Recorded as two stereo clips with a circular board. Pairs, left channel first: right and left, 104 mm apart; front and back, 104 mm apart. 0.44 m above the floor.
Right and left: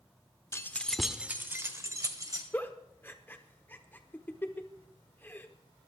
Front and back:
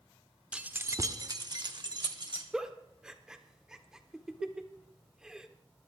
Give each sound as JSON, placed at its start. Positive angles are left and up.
{"t": 0.5, "sound": "keys jangling", "azimuth_deg": -110, "distance_m": 0.8}
{"t": 2.5, "sound": "a giggle", "azimuth_deg": -110, "distance_m": 1.2}